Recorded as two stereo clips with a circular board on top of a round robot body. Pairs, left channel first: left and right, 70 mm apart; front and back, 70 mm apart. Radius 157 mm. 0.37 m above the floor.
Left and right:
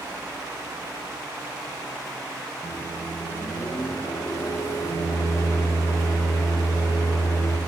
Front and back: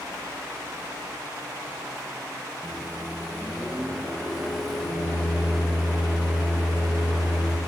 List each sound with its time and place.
2.6 s a microwave: 85° left, 1.3 m